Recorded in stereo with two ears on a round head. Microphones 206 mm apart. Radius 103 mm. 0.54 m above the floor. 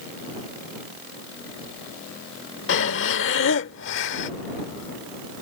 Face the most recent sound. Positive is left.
turn(degrees=55)  # may be behind; listen again after turning